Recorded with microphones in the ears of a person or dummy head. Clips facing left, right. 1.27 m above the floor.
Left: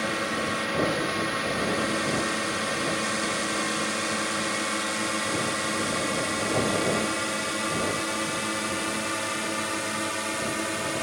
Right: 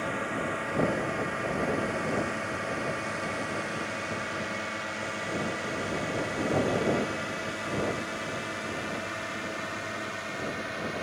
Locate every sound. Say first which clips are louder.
0.0 s a drone: left 3 dB; 55° left (ahead or behind); by 11.0 s 60° left (ahead or behind)